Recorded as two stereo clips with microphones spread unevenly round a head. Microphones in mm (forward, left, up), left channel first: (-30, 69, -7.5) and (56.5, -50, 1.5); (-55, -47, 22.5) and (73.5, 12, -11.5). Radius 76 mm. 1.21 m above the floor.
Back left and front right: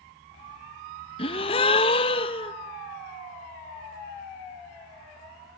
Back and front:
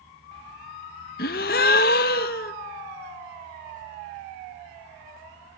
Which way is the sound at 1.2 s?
175° right.